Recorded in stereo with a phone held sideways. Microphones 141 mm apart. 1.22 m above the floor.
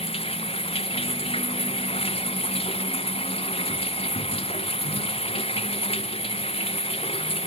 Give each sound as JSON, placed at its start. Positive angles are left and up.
{"t": 0.0, "sound": "running water", "side_deg": 45}